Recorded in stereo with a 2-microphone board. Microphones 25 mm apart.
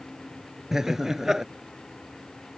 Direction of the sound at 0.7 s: 20° right (ahead or behind).